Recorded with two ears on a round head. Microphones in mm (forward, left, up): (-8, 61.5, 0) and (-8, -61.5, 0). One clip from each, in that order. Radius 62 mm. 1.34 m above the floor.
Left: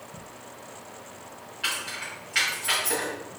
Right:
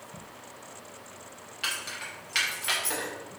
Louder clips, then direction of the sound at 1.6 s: Left 3 dB; 65° right (ahead or behind).